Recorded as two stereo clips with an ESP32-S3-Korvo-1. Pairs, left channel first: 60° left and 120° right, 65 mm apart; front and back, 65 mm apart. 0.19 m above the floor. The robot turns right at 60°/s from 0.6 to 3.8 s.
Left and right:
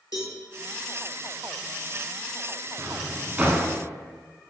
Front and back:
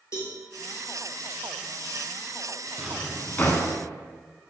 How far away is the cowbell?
About 1.0 m.